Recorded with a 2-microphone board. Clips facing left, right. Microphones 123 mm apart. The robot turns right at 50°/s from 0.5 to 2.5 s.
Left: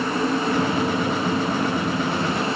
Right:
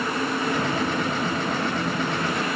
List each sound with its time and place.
Only background noise.